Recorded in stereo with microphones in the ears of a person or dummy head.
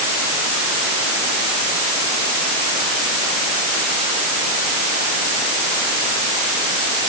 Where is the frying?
I don't hear frying.